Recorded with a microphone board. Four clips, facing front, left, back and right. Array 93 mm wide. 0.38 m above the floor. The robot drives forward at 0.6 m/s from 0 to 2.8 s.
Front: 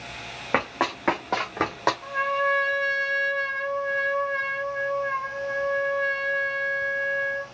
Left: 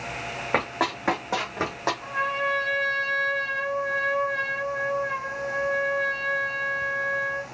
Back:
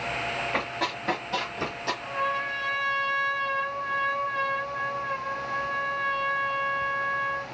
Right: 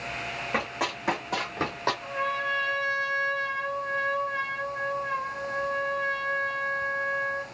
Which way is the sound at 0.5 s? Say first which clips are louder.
Left 5 dB, front 4 dB; 35° left.